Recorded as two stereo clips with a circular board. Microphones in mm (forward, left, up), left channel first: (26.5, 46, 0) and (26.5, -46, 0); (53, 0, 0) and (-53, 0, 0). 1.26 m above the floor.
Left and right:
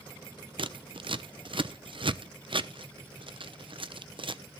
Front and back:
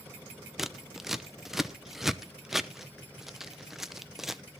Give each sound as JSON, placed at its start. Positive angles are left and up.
{"t": 0.6, "sound": "scissors", "azimuth_deg": -95, "distance_m": 0.7}